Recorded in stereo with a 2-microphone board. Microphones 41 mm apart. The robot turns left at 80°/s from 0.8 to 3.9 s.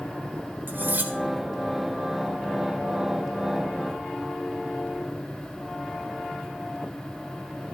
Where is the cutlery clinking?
55° right (ahead or behind), 1.3 m; by 1.1 s 45° right (ahead or behind), 1.3 m.